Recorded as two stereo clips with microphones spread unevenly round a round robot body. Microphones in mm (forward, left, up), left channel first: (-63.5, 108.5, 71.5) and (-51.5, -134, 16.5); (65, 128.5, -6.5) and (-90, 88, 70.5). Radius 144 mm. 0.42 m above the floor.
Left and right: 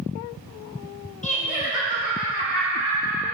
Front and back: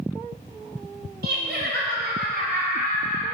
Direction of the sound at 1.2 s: 155° left.